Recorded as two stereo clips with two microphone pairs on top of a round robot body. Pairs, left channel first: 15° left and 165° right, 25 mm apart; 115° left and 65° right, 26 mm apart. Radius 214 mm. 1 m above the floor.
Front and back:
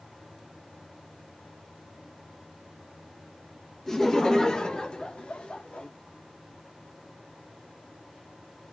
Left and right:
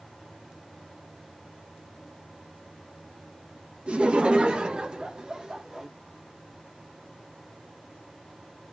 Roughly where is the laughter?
Ahead right.